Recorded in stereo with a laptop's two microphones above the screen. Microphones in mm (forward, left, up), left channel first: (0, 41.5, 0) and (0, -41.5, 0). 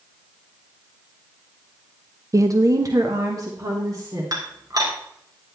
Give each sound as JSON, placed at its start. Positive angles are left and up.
{"t": 2.3, "sound": "a woman speaking", "side_deg": -40, "distance_m": 0.6}
{"t": 4.3, "sound": "dishes clattering", "side_deg": -50, "distance_m": 3.0}